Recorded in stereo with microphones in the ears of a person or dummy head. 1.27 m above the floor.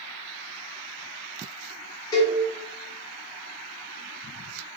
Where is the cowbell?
20° left (ahead or behind), 1.1 m.